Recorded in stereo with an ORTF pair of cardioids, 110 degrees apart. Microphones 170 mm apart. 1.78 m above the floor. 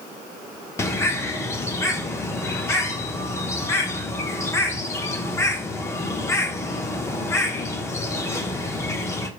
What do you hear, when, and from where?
0.8 s a bird: 15° left, 0.8 m